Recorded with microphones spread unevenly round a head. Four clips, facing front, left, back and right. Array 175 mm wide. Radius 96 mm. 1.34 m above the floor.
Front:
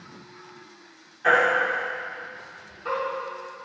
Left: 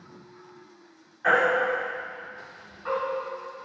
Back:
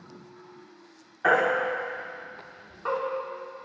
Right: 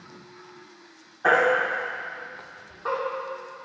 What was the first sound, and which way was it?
A baby crying, 130° right.